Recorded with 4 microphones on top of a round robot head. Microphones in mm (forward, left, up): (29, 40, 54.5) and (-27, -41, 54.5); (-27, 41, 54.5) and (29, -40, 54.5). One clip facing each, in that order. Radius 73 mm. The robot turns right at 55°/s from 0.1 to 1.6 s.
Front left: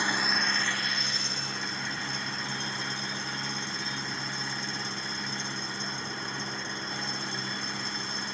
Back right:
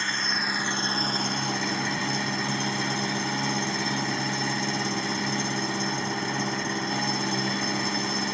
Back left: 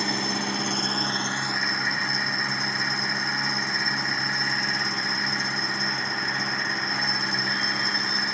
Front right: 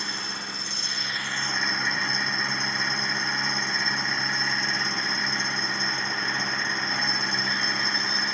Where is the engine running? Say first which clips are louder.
Front left 1 dB, back left 8 dB; 130° left; by 8.3 s 145° right.